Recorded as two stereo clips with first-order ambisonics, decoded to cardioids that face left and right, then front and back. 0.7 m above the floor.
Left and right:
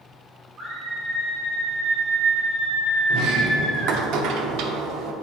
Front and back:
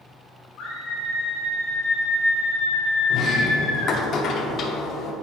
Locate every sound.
0.6 s a scream: 35° right, 1.9 m
3.1 s a sliding door: 55° right, 0.8 m